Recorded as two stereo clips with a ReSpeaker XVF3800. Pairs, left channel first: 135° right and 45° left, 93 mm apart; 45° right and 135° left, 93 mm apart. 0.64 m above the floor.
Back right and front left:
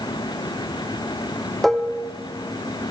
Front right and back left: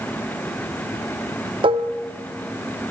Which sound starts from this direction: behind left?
Dishes clattering, at 1.6 s.